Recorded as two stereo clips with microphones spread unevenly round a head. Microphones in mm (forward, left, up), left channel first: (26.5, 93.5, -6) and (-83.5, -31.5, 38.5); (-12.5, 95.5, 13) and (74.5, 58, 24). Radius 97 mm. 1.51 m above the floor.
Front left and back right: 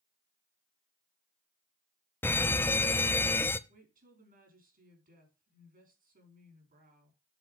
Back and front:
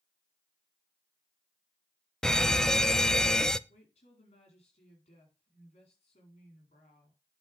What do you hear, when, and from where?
2.2 s a fire alarm: 85° left, 0.6 m
3.7 s a woman speaking: 170° right, 4.5 m